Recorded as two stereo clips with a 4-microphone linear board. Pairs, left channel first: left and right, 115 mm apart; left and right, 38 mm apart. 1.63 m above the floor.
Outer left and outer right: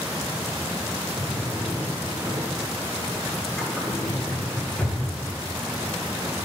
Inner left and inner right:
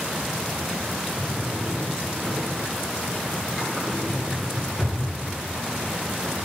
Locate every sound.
1.2 s a drawer: 10° left (ahead or behind), 6 m